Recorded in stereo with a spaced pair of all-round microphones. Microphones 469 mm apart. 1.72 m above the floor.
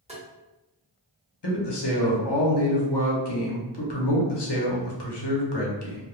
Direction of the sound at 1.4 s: 60° left (ahead or behind).